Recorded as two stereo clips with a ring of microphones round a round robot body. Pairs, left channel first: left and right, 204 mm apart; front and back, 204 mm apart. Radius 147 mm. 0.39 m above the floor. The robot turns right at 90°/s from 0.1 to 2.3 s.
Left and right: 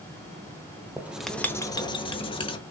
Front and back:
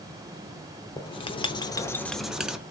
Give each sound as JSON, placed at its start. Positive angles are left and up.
{"t": 1.0, "sound": "writing", "azimuth_deg": -25, "distance_m": 0.7}